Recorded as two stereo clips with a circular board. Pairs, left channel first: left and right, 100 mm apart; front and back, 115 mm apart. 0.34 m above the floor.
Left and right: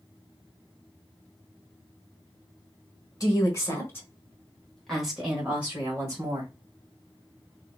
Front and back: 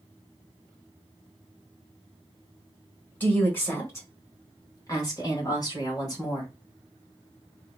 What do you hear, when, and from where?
3.2 s a woman speaking: 65° left, 1.4 m; by 6.5 s 40° right, 1.6 m